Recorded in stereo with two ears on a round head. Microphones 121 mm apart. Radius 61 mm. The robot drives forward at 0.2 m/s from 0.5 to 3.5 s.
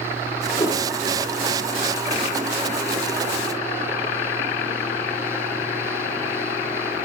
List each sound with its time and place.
0.6 s a whoosh: 25° left (ahead or behind), 1.1 m